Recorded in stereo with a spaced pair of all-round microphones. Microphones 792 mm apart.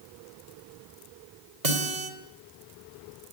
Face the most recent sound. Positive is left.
turn(degrees=-60)  # may be behind; listen again after turning